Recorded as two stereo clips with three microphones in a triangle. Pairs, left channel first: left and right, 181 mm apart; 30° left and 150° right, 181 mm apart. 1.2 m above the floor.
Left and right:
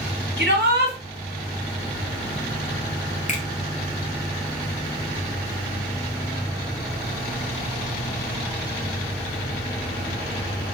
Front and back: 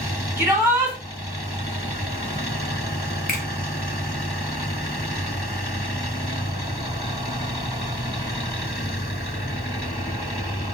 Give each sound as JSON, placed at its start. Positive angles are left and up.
{"t": 0.4, "sound": "a shout", "azimuth_deg": -70, "distance_m": 1.6}
{"t": 3.3, "sound": "a finger snap", "azimuth_deg": 50, "distance_m": 0.8}